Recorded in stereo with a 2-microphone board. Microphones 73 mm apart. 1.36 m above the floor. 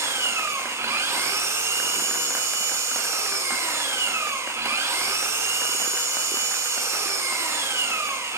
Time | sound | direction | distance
0.0 | an engine running | 40° right (ahead or behind) | 4 m